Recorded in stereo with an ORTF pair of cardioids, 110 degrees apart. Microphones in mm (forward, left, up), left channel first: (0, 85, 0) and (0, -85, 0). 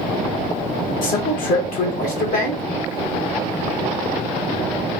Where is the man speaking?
60° left, 1.4 m.